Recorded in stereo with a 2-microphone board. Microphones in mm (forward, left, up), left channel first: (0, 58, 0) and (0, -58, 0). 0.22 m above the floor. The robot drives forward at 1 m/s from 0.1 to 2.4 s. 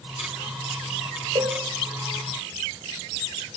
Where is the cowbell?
45° right (ahead or behind), 1.2 m; by 1.6 s 55° right (ahead or behind), 1.1 m.